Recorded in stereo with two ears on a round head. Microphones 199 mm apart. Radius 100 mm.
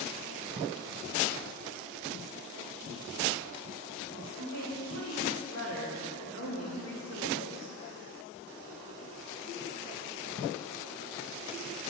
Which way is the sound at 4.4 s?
70° left (ahead or behind).